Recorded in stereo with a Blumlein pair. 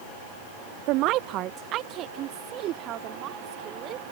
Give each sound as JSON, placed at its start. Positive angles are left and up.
{"t": 0.9, "sound": "a woman speaking", "azimuth_deg": -40}